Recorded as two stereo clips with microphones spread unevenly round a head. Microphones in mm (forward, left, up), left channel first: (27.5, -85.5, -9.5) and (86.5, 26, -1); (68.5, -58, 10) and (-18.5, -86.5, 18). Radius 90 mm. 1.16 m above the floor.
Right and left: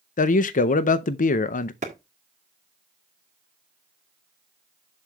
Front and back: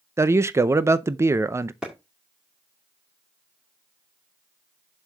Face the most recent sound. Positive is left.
turn(degrees=115)